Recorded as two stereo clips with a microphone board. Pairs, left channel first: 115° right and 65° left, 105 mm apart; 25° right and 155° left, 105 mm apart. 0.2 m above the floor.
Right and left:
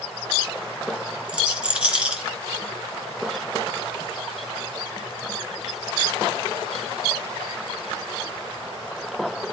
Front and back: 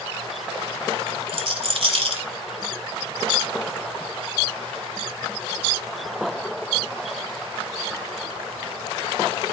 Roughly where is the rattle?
Behind left.